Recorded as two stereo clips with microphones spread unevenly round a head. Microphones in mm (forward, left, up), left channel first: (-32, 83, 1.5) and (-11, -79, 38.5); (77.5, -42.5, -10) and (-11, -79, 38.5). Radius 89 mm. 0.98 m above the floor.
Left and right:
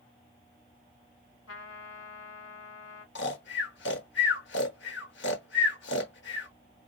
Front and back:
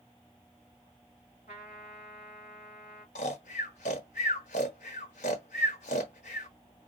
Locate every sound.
1.5 s a trumpet: 85° left, 2 m
3.1 s snoring: 70° left, 1.0 m